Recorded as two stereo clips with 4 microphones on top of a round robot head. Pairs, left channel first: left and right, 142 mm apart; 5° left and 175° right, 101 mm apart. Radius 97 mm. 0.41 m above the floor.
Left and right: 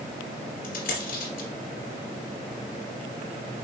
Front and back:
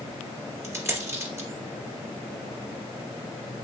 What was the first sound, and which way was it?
A dropped coin, 125° left.